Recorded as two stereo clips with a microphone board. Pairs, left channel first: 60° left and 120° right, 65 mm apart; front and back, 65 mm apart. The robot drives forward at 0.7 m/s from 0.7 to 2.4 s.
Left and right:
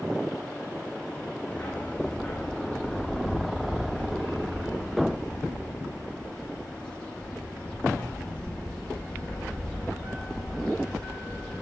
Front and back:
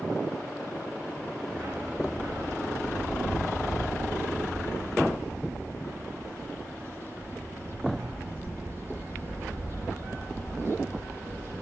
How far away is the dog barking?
About 3.5 m.